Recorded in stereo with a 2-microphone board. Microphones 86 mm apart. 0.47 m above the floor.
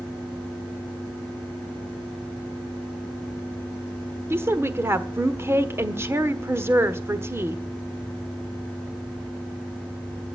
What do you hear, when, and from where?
4.3 s a woman speaking: 30° right (ahead or behind), 1.2 m